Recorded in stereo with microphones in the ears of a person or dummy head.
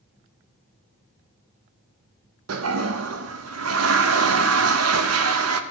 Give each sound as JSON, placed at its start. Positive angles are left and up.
{"t": 2.5, "sound": "a toilet flushing", "side_deg": -85, "distance_m": 0.9}